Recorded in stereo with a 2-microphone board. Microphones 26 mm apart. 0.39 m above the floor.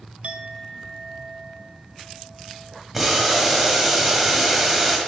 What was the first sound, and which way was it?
A clink, 60° right (ahead or behind).